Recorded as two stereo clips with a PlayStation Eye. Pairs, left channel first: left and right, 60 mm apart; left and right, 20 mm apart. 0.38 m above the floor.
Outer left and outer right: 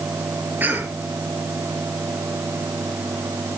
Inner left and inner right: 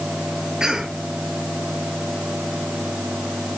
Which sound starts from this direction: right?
A cough, at 0.6 s.